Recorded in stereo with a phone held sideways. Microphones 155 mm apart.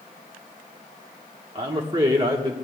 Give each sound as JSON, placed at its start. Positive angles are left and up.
{"t": 1.6, "sound": "a man speaking", "side_deg": -30, "distance_m": 1.3}